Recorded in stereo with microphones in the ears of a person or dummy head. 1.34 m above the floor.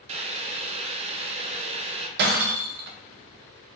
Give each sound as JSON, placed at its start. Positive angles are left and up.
{"t": 0.1, "sound": "boiling", "side_deg": -30, "distance_m": 0.6}
{"t": 2.2, "sound": "breaking glass", "side_deg": -50, "distance_m": 0.7}